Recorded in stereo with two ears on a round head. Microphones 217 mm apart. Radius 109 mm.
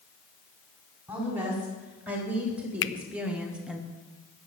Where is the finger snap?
55° left (ahead or behind), 0.6 m.